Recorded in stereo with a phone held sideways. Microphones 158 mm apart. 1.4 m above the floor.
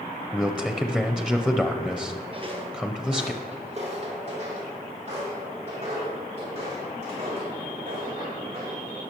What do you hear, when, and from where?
0.3 s a man speaking: 5° left (ahead or behind), 0.5 m
2.3 s footsteps: 35° right (ahead or behind), 1.7 m; by 8.8 s 40° right (ahead or behind), 6 m